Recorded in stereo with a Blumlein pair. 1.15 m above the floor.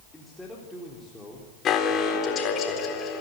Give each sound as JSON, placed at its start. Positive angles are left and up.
{"t": 0.1, "sound": "a man speaking", "azimuth_deg": 5, "distance_m": 3.5}
{"t": 1.6, "sound": "an alarm", "azimuth_deg": 25, "distance_m": 4.0}